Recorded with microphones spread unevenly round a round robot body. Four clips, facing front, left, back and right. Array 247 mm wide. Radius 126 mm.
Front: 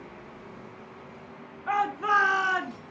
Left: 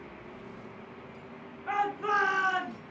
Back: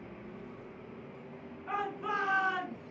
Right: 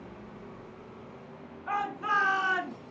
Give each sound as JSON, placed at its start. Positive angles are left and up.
{"t": 1.7, "sound": "a shout", "azimuth_deg": 20, "distance_m": 4.5}